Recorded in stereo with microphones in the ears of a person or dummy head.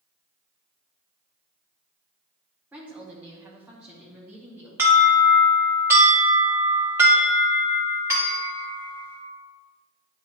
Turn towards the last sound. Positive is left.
turn(degrees=-15)  # may be behind; listen again after turning